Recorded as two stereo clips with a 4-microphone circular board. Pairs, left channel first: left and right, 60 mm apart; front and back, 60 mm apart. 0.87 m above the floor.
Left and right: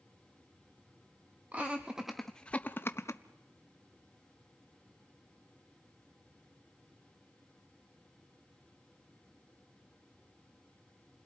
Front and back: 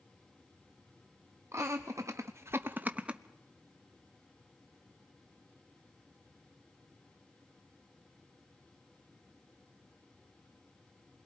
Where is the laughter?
150° right, 0.9 m; by 3.2 s 105° left, 0.8 m.